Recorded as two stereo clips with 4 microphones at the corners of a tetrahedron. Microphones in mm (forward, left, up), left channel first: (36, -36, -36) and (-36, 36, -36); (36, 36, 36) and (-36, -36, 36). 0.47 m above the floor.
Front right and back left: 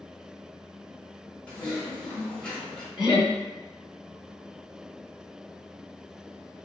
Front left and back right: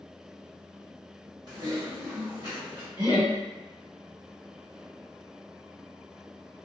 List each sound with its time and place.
1.5 s typing on a keyboard: 115° right, 1.3 m
3.0 s laughter: 150° right, 1.9 m